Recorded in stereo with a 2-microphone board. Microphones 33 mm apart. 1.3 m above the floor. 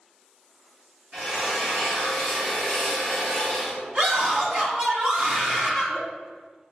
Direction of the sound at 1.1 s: 35° right (ahead or behind).